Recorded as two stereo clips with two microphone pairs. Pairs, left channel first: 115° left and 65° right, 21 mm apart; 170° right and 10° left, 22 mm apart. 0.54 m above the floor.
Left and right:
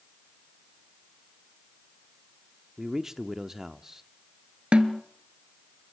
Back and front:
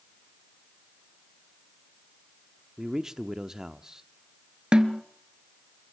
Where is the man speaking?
20° right, 0.7 m.